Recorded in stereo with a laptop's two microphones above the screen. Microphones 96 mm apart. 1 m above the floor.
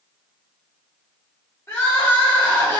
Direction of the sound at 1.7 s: 30° left (ahead or behind).